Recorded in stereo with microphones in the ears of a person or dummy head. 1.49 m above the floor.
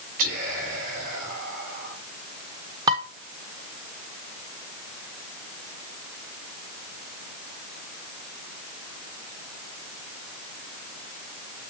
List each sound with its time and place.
0.2 s whispering: 50° right (ahead or behind), 4.5 m
2.9 s dishes clattering: 20° right (ahead or behind), 0.6 m